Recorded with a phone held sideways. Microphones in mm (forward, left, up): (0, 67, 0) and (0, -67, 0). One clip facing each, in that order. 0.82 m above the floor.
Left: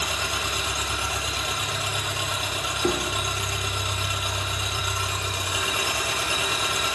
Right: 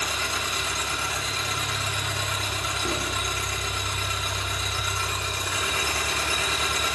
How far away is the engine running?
About 4 m.